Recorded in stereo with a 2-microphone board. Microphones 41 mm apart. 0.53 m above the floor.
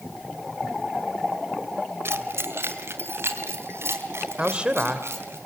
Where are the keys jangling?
75° right (ahead or behind), 1.5 m; by 5.4 s 85° right, 4 m.